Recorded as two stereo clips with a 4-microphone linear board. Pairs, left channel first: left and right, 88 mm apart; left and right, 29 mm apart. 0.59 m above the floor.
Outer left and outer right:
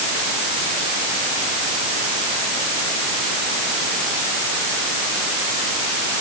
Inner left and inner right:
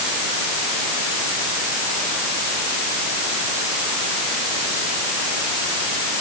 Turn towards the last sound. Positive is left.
No sound to turn to.